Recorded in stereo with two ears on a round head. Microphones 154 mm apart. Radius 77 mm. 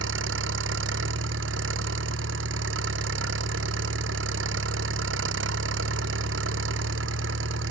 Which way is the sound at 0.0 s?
80° right.